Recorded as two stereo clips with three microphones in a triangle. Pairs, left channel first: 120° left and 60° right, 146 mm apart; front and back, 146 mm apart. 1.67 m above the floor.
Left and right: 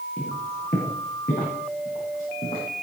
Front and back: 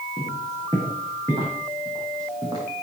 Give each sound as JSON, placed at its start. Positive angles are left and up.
{"t": 0.2, "sound": "footsteps", "azimuth_deg": 115, "distance_m": 7.0}